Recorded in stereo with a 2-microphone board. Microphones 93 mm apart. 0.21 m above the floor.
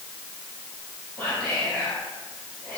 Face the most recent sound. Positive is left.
turn(degrees=20)  # may be behind; listen again after turning